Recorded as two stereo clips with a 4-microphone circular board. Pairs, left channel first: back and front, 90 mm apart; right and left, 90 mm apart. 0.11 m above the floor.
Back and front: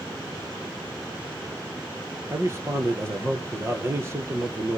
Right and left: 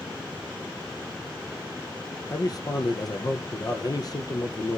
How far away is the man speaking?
About 2 m.